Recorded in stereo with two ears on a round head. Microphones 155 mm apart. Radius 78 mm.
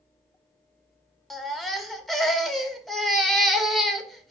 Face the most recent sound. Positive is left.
turn(degrees=0)  # may be behind; listen again after turning